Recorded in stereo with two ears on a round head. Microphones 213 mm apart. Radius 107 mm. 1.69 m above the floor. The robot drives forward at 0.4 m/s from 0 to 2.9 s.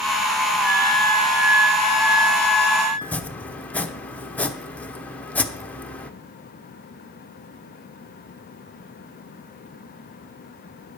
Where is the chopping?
5° left (ahead or behind), 0.8 m.